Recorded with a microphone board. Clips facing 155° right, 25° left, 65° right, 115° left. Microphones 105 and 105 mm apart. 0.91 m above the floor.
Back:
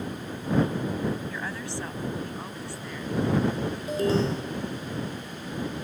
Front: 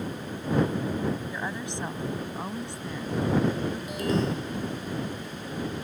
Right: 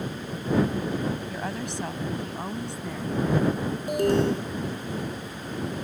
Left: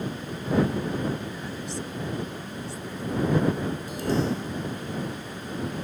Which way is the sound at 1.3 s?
50° right.